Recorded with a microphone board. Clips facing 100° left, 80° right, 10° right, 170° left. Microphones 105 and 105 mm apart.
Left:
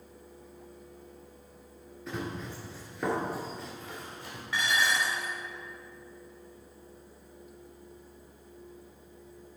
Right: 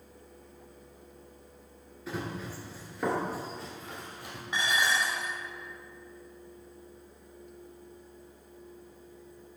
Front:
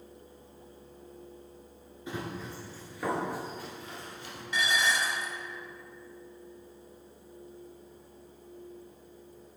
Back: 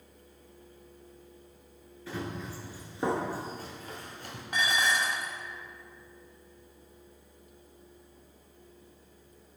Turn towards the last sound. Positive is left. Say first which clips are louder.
# even, back 1 dB
turn(degrees=-150)